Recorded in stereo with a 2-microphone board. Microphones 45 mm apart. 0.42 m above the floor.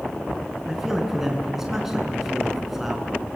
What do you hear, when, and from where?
0.7 s a man speaking: 10° right (ahead or behind), 5 m